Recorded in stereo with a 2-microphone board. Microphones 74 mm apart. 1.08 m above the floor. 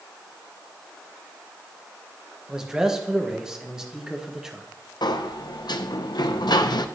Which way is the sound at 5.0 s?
75° left (ahead or behind).